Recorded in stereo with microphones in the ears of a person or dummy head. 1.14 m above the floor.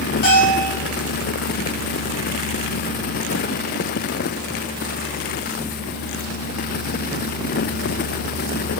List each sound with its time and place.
0.2 s a bell: 50° left (ahead or behind), 1.0 m